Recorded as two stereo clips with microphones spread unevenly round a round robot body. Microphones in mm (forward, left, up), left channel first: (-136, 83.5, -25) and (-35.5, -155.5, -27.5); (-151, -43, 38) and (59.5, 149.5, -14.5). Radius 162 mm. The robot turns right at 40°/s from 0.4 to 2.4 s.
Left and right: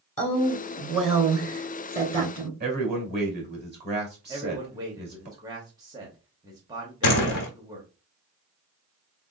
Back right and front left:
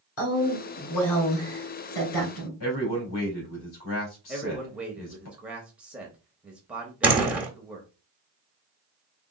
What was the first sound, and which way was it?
A woman speaking, straight behind.